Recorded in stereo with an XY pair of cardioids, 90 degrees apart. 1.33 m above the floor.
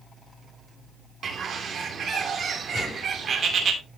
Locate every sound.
1.2 s a bird: 55° right, 3 m
2.7 s a gunshot: 40° left, 6 m